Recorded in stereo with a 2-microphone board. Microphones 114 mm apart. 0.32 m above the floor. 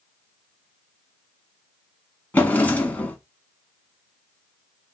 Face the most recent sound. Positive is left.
turn(degrees=15)  # may be behind; listen again after turning